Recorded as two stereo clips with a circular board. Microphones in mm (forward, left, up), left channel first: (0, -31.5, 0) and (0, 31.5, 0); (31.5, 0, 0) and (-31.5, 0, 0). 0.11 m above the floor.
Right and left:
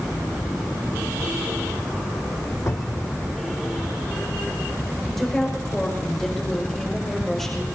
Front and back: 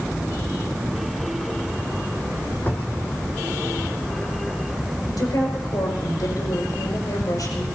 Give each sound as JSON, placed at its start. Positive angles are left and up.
{"t": 2.7, "sound": "a cupboard door", "azimuth_deg": -55, "distance_m": 1.6}
{"t": 5.1, "sound": "a woman speaking", "azimuth_deg": -5, "distance_m": 6.0}